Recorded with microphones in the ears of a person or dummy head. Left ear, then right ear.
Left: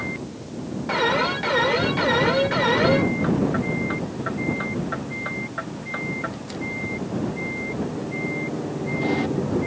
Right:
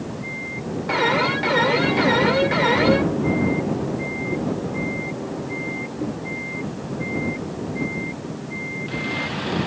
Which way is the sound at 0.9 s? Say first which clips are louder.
Right 2 dB; 5° right (ahead or behind).